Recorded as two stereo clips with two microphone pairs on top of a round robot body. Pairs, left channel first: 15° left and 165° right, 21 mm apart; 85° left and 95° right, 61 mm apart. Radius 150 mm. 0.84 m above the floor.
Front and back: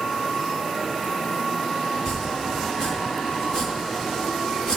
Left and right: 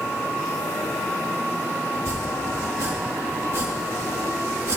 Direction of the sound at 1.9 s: 55° right.